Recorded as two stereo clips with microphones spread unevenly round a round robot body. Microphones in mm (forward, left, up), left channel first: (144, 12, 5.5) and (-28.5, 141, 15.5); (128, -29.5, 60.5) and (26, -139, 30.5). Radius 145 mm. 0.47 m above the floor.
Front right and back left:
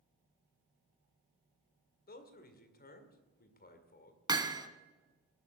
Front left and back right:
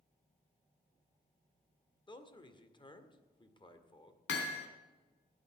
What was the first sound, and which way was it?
A man speaking, 15° right.